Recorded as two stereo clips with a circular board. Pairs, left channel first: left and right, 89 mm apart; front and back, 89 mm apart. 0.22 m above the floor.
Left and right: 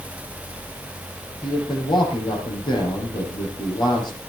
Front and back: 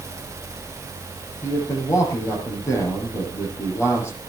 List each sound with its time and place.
1.4 s a man speaking: 60° left, 8 m